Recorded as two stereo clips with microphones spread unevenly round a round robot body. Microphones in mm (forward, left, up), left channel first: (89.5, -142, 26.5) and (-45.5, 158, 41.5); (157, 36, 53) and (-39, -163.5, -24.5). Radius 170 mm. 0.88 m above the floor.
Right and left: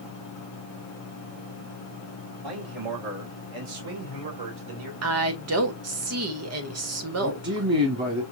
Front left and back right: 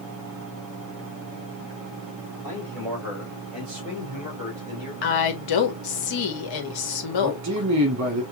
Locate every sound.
2.4 s a man speaking: 130° left, 2.0 m; by 4.9 s 150° left, 3 m
5.0 s a woman speaking: 70° left, 1.7 m
7.2 s a man speaking: 175° left, 1.4 m